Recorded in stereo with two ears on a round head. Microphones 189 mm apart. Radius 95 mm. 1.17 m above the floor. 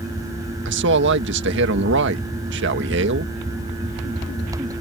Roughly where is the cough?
No cough in this recording.